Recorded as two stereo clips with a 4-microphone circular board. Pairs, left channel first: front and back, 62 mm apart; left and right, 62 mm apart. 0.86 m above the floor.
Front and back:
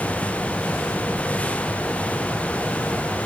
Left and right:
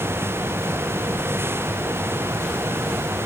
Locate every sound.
Only background noise.